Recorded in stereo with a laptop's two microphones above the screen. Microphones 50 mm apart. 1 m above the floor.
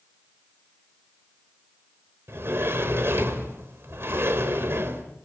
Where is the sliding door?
55° right (ahead or behind), 4 m.